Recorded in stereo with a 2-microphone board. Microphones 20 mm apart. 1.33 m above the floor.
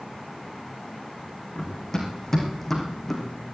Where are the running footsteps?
30° left (ahead or behind), 4 m; by 3.2 s 5° left (ahead or behind), 3.5 m.